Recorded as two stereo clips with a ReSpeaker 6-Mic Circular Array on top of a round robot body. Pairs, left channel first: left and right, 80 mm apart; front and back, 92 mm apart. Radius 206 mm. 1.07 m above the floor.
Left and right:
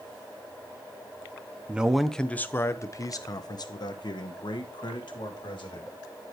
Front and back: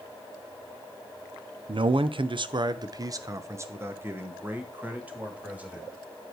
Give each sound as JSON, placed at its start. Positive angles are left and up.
{"t": 1.7, "sound": "a man speaking", "azimuth_deg": -165, "distance_m": 0.7}